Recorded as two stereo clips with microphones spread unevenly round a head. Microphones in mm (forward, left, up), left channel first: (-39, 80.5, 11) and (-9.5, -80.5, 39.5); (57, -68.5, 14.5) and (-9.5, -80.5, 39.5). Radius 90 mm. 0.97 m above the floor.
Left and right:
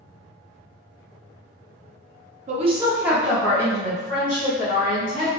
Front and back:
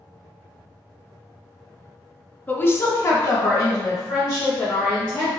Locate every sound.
2.5 s a woman speaking: 30° right, 0.6 m; by 5.3 s 50° left, 1.8 m